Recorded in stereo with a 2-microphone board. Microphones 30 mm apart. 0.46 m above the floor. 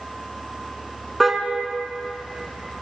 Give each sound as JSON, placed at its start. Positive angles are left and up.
{"t": 1.2, "sound": "a car horn", "side_deg": -5, "distance_m": 2.5}